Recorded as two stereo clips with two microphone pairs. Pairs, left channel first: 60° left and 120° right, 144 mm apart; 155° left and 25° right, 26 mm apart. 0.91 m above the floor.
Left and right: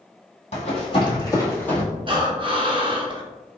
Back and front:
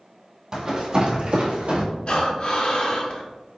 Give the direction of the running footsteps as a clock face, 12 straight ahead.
11 o'clock.